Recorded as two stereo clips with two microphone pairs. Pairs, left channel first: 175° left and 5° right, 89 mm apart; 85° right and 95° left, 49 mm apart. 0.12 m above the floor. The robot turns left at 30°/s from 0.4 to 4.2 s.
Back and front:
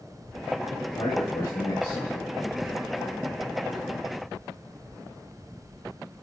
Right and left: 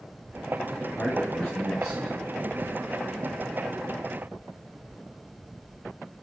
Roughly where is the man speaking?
Behind right.